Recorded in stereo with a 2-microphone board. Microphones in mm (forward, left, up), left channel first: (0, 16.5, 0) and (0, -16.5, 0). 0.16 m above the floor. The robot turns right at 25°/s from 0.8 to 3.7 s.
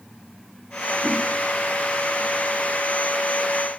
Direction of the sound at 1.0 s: 10° right (ahead or behind).